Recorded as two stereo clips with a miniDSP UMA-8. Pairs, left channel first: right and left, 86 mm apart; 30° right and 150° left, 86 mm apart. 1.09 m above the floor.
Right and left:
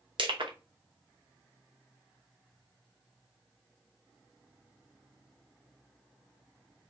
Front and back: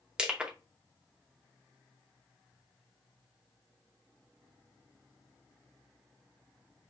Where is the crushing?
70° left, 0.7 m.